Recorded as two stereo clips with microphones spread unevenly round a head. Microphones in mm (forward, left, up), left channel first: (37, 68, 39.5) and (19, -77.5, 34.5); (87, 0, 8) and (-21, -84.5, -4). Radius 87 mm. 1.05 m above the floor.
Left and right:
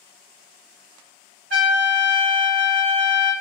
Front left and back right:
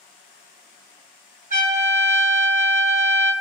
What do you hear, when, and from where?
1.5 s a trumpet: 120° right, 1.9 m